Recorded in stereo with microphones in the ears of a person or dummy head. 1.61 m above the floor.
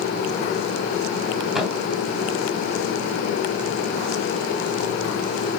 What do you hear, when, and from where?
1.6 s a thud: 5° right (ahead or behind), 3.5 m